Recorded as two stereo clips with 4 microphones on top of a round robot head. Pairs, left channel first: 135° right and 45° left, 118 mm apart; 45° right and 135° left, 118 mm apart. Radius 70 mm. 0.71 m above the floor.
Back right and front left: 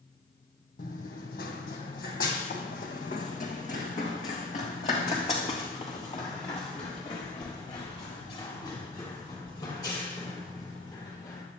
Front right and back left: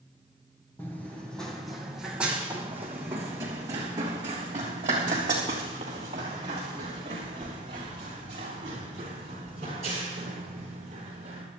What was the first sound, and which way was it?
Running footsteps, 120° right.